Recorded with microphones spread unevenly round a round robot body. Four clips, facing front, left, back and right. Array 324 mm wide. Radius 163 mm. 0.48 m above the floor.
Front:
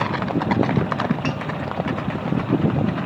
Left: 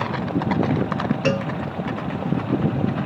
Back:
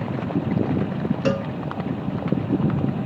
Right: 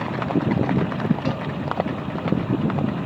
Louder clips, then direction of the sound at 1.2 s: Left 4 dB, back 3 dB; 125° left.